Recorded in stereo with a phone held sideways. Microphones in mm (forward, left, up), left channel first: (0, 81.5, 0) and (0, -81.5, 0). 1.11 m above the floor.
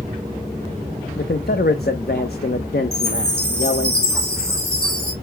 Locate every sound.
1.2 s a man speaking: 80° left, 0.8 m
2.9 s a chime: 85° left, 3 m